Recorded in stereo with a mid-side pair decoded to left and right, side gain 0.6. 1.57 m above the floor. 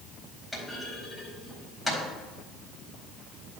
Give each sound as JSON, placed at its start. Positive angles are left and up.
{"t": 0.5, "sound": "a clunk", "azimuth_deg": 5, "distance_m": 4.0}